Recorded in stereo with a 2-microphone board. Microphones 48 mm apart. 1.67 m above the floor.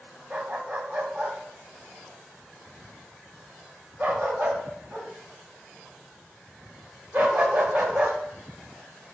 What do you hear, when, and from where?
0.3 s a dog barking: 30° right (ahead or behind), 1.6 m